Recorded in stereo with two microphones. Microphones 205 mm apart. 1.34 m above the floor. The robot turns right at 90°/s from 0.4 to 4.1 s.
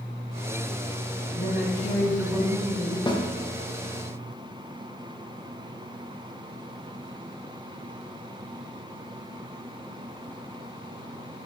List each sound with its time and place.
1.3 s a woman speaking: 105° left, 1.5 m; by 3.0 s 110° right, 1.5 m
3.1 s a snare drum: 20° left (ahead or behind), 0.8 m; by 3.2 s 35° left (ahead or behind), 0.8 m